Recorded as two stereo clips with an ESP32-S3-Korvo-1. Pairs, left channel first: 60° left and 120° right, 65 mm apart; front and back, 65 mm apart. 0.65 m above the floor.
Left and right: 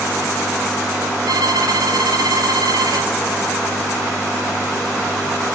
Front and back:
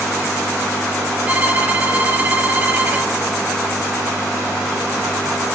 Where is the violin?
120° right, 3 m.